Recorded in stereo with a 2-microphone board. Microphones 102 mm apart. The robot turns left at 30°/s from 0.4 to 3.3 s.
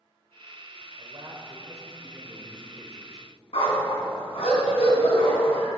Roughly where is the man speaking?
Behind right.